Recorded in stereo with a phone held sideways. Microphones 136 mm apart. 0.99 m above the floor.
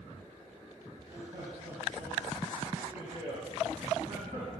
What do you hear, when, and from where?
1.0 s laughter: 50° right (ahead or behind), 4.5 m; by 4.5 s 60° right (ahead or behind), 7 m